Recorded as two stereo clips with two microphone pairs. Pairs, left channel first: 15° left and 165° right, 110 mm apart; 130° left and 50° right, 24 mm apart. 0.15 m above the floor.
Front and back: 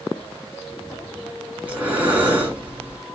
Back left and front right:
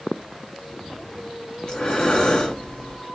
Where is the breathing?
135° left, 1.5 m.